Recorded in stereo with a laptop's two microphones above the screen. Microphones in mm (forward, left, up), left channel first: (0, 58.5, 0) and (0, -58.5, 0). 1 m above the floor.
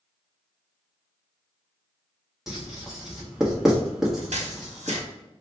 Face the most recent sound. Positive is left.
turn(degrees=-75)  # may be behind; listen again after turning